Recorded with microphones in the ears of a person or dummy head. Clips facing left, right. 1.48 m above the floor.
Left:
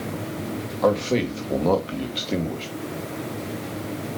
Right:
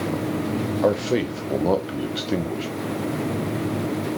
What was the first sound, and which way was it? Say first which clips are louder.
A man speaking: left 1 dB; 5° right (ahead or behind).